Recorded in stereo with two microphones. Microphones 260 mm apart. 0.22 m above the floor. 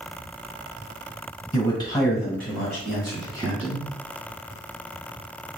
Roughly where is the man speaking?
Centre.